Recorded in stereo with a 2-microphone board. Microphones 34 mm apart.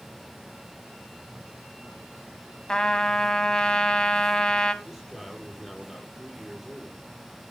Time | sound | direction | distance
2.7 | a trumpet | 25° left (ahead or behind) | 1.4 m
4.8 | a man speaking | centre (ahead or behind) | 6.5 m